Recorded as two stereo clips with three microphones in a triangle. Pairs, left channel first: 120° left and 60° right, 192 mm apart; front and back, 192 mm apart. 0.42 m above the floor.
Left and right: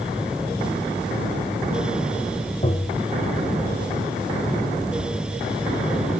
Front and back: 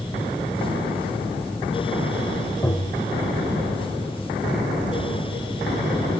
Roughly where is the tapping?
Left.